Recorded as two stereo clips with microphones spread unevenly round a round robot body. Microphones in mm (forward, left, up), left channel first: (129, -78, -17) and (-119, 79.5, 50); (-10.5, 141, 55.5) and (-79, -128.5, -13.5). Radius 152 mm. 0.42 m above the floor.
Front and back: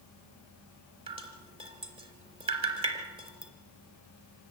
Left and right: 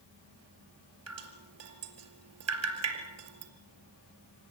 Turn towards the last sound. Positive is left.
turn(degrees=-140)